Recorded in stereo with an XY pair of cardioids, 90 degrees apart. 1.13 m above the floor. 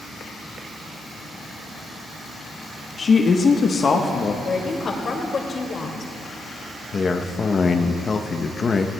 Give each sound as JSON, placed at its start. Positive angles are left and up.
{"t": 3.0, "sound": "a woman speaking", "azimuth_deg": 50, "distance_m": 1.1}
{"t": 4.4, "sound": "a woman speaking", "azimuth_deg": 50, "distance_m": 2.0}
{"t": 6.9, "sound": "a man speaking", "azimuth_deg": 40, "distance_m": 0.8}